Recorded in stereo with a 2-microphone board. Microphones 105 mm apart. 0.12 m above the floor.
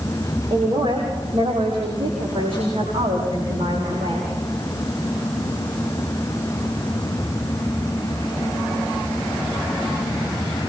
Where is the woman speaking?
55° right (ahead or behind), 6.5 m; by 4.3 s 75° right (ahead or behind), 9.5 m.